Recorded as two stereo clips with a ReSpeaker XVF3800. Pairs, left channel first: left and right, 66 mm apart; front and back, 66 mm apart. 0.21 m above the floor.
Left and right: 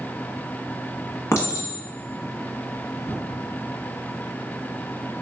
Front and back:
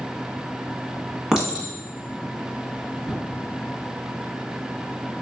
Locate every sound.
1.3 s a clink: 100° left, 1.2 m